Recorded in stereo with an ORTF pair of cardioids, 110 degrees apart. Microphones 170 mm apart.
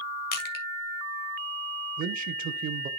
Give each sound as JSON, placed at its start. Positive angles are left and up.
{"t": 0.3, "sound": "crushing", "azimuth_deg": 65, "distance_m": 2.0}
{"t": 2.0, "sound": "a man speaking", "azimuth_deg": -55, "distance_m": 1.1}